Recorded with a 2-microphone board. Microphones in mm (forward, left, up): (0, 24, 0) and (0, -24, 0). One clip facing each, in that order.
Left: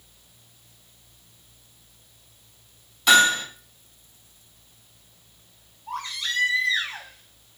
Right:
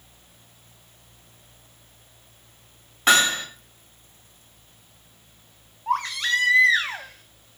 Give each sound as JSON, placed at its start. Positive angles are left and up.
{"t": 3.1, "sound": "hammering", "side_deg": -40, "distance_m": 5.0}
{"t": 5.9, "sound": "a baby crying", "side_deg": -65, "distance_m": 1.4}